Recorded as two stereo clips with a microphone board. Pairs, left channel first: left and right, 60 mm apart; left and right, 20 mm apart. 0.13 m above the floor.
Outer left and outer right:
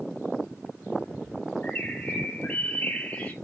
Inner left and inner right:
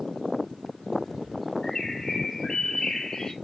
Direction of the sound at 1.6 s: 30° left (ahead or behind).